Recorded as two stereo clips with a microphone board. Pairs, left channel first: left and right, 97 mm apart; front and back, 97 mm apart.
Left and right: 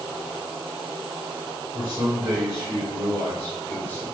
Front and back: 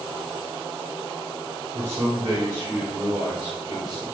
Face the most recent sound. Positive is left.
turn(degrees=95)